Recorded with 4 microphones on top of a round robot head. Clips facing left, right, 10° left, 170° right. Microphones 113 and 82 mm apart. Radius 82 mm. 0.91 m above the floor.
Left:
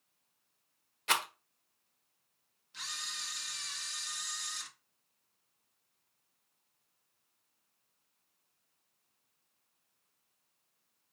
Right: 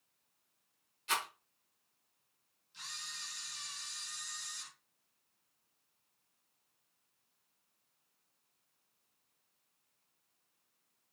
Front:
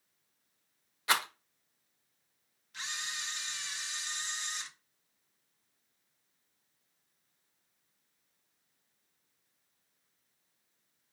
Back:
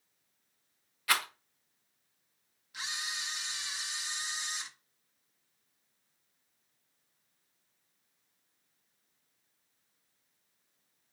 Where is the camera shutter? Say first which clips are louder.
Left 5 dB, back 1 dB; 110° left, 1.9 m.